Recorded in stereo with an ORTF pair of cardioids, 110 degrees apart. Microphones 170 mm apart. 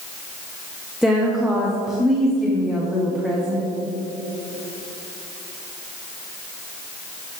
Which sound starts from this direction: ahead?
A woman speaking, at 1.0 s.